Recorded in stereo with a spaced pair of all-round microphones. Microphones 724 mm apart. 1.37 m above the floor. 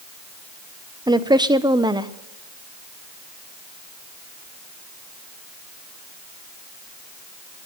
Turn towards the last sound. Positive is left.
turn(degrees=-5)  # may be behind; listen again after turning